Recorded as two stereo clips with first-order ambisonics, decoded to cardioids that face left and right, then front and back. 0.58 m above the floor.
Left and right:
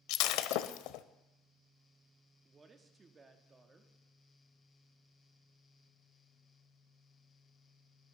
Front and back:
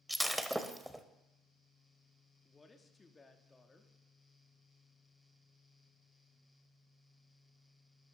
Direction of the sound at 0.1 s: 95° left.